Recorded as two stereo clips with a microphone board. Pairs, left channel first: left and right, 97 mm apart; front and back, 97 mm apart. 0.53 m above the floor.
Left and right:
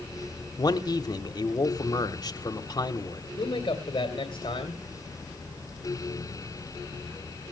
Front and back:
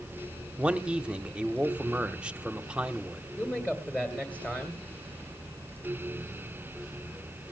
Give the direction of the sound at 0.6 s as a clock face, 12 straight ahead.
8 o'clock.